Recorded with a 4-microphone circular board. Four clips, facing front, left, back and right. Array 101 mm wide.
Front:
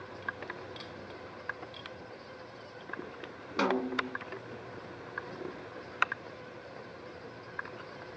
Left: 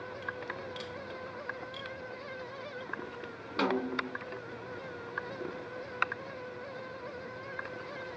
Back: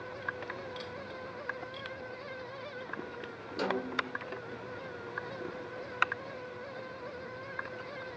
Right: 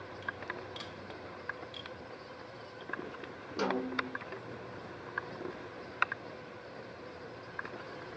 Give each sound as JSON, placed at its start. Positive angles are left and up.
{"t": 3.6, "sound": "a snare drum", "azimuth_deg": 30, "distance_m": 1.0}